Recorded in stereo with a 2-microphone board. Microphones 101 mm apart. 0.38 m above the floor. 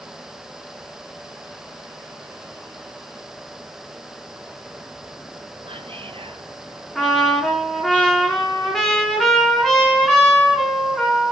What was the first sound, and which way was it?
Whispering, 65° right (ahead or behind).